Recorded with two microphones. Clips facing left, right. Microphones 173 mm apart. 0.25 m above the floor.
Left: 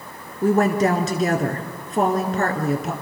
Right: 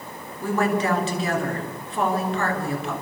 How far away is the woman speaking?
About 3 m.